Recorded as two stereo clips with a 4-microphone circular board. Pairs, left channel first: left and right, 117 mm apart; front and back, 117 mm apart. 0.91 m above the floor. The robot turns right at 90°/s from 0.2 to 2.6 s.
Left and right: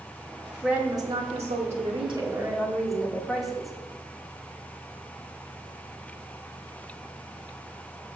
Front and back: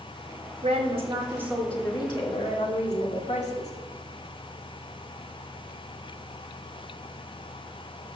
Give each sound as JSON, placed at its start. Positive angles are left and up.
{"t": 0.6, "sound": "a woman speaking", "azimuth_deg": 180, "distance_m": 2.0}